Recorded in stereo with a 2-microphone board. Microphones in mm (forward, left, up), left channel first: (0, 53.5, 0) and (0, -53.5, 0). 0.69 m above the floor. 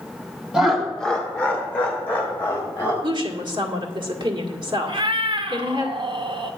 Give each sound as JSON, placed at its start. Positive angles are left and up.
{"t": 0.5, "sound": "laughter", "side_deg": -5, "distance_m": 1.4}
{"t": 3.0, "sound": "a woman speaking", "side_deg": -45, "distance_m": 1.9}
{"t": 4.9, "sound": "a cat meowing", "side_deg": -50, "distance_m": 0.8}